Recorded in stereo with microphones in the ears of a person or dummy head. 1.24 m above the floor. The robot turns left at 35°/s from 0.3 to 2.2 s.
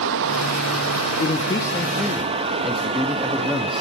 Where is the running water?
75° right, 0.8 m; by 3.8 s 140° right, 0.8 m.